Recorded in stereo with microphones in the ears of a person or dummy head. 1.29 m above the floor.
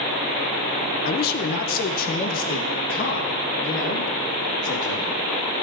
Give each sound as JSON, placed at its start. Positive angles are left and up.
{"t": 1.1, "sound": "a man speaking", "side_deg": 50, "distance_m": 0.7}